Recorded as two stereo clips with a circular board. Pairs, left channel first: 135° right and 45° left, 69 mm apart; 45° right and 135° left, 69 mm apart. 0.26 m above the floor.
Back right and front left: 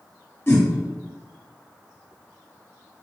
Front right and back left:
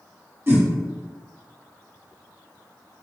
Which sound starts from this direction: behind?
A whoosh, at 0.5 s.